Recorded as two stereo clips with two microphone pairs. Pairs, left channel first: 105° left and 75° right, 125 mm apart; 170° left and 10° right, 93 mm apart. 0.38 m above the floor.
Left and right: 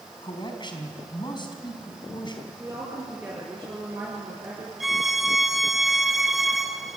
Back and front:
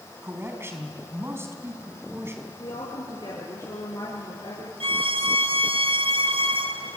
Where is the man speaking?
55° left, 4 m.